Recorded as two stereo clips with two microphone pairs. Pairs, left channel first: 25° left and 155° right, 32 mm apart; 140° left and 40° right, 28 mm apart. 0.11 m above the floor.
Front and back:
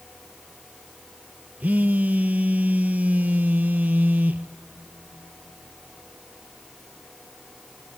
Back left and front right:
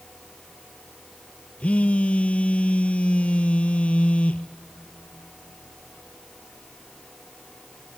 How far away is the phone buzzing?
About 0.5 m.